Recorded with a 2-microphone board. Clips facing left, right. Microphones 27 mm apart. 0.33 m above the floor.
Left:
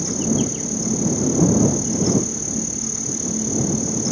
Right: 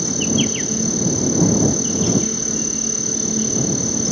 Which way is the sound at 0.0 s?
50° right (ahead or behind).